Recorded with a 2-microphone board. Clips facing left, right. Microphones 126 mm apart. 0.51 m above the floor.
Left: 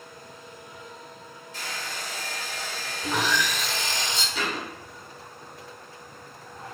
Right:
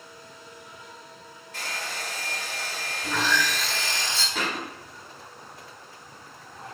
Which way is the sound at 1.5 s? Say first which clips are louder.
Right 1 dB; 60° right (ahead or behind).